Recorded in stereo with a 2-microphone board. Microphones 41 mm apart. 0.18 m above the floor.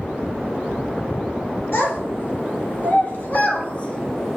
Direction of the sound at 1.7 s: 60° left (ahead or behind).